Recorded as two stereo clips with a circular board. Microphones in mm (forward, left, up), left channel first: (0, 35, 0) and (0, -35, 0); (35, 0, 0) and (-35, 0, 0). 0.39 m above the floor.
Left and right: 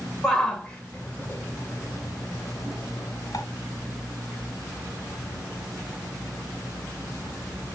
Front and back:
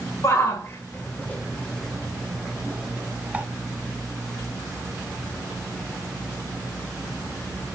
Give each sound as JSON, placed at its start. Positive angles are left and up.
{"t": 0.2, "sound": "a shout", "azimuth_deg": 10, "distance_m": 1.6}